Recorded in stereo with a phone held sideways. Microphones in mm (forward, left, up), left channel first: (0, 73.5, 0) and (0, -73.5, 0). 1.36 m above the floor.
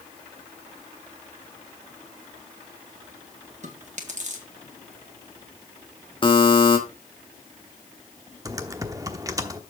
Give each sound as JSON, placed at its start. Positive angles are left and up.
{"t": 3.6, "sound": "chewing", "side_deg": -50, "distance_m": 1.7}
{"t": 6.2, "sound": "a buzzer", "side_deg": 35, "distance_m": 1.5}
{"t": 8.4, "sound": "typing on a keyboard", "side_deg": -25, "distance_m": 0.9}